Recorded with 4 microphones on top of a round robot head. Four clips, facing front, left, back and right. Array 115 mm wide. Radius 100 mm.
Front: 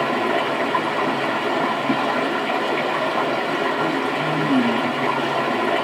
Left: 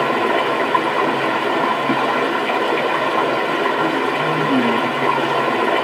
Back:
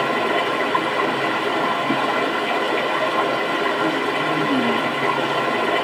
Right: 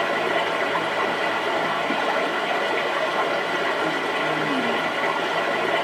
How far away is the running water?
About 0.7 m.